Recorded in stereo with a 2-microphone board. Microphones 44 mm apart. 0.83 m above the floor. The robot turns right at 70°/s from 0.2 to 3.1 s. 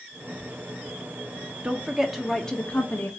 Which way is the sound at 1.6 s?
40° right.